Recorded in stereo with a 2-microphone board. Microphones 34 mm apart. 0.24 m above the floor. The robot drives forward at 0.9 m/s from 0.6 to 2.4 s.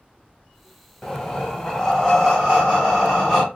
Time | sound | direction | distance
1.0 | breathing | 15° left (ahead or behind) | 0.7 m